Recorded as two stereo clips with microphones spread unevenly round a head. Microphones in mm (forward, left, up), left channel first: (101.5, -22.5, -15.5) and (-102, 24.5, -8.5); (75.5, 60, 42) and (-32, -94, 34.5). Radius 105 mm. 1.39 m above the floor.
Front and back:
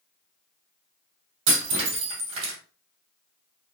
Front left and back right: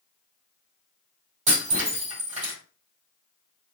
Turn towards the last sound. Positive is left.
turn(degrees=180)